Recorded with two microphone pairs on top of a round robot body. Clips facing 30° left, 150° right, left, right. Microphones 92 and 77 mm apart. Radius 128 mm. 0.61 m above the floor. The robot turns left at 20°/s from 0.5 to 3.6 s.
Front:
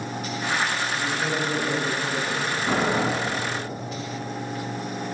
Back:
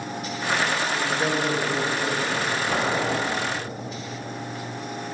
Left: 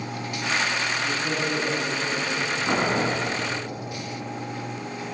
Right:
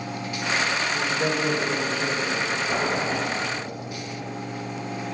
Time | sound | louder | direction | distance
0.9 | a man speaking | back 2 dB, right 2 dB | 90° right | 4.5 m
2.6 | boiling | front 4 dB, left 4 dB | 35° left | 6 m